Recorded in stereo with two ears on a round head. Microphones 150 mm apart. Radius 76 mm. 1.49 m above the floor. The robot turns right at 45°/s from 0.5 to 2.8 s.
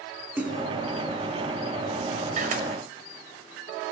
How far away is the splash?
About 4 m.